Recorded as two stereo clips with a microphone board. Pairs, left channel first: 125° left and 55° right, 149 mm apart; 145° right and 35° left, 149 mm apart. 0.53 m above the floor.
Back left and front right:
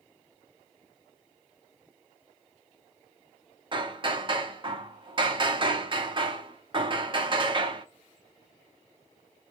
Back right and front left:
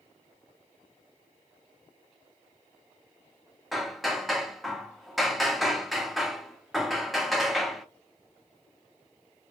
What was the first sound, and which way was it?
Hammering, 55° right.